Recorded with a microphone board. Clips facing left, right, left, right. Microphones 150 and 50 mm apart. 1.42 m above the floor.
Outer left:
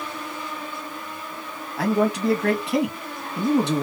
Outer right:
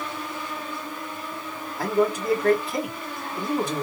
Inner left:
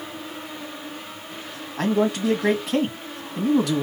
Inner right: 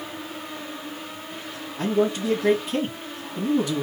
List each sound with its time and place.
1.8 s a man speaking: 80° left, 1.8 m